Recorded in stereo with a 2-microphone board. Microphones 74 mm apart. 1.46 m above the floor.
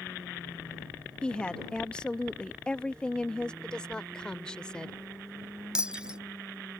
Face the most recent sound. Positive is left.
turn(degrees=-15)  # may be behind; listen again after turning